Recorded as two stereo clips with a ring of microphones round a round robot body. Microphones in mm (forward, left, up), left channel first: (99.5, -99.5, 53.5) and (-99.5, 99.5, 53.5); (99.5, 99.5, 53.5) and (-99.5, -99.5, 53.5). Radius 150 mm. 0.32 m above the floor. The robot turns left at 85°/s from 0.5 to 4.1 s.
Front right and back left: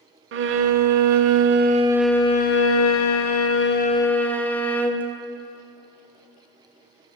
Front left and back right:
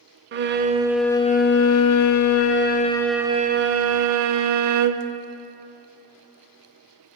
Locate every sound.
0.3 s a violin: 175° left, 0.5 m; by 5.1 s 130° right, 0.5 m